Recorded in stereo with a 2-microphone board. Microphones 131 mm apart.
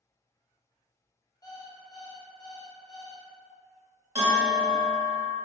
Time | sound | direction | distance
1.4 | an alarm clock | 30° left (ahead or behind) | 0.6 m
4.2 | a bell | 25° right (ahead or behind) | 0.8 m